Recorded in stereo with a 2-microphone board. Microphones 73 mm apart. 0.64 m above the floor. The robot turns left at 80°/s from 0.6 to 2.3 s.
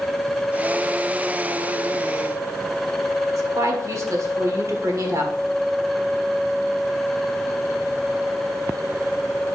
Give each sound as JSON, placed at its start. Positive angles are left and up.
{"t": 3.3, "sound": "a woman speaking", "side_deg": -45, "distance_m": 1.6}